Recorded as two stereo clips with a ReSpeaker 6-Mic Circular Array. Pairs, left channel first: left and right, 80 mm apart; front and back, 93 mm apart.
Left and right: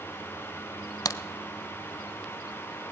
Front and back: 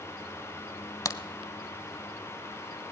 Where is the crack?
50° left, 0.5 m.